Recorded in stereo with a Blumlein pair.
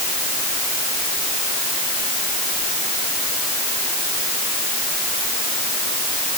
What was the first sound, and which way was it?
Only background noise.